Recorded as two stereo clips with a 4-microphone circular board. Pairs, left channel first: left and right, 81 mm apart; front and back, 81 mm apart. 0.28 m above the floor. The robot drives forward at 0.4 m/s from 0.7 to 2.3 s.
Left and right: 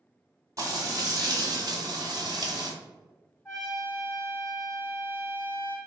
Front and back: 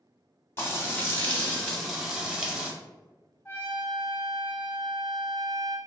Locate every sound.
0.6 s frying: 55° right, 1.0 m; by 2.7 s 100° right, 0.9 m
3.5 s a trumpet: 60° left, 1.0 m